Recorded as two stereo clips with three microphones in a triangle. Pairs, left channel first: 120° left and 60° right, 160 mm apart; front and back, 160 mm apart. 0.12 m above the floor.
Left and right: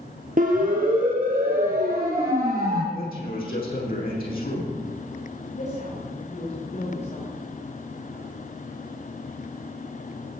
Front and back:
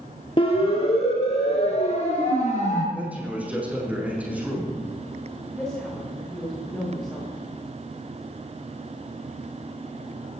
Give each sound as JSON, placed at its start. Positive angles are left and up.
{"t": 0.4, "sound": "a siren", "azimuth_deg": -50, "distance_m": 3.5}
{"t": 2.9, "sound": "a man speaking", "azimuth_deg": 100, "distance_m": 6.0}
{"t": 5.5, "sound": "a woman speaking", "azimuth_deg": 85, "distance_m": 9.0}